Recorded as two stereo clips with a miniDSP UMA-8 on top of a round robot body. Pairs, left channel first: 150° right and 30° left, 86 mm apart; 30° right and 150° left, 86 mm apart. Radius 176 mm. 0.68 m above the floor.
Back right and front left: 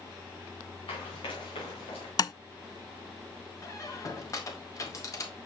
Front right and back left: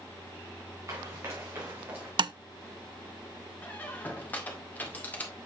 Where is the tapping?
170° left, 0.5 m.